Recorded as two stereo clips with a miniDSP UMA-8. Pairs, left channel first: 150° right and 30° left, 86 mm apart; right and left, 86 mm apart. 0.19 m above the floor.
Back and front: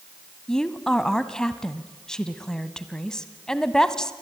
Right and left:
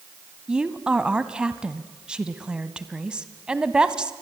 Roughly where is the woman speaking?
Behind left.